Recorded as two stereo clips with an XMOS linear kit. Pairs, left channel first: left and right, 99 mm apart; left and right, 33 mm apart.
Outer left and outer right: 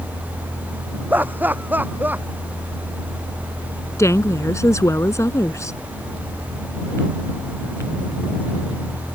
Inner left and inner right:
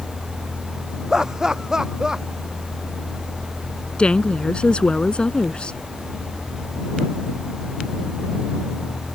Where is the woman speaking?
30° left (ahead or behind).